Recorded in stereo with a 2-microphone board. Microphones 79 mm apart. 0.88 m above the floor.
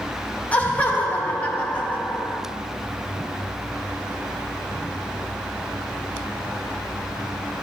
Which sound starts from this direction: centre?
Laughter, at 0.5 s.